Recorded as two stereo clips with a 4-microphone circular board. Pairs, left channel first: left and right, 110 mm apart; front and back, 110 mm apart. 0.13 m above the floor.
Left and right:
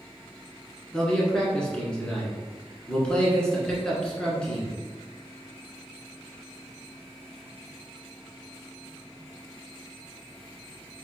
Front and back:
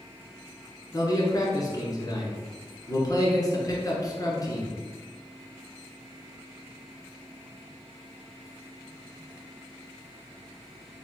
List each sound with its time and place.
0.9 s a man speaking: 15° left, 1.4 m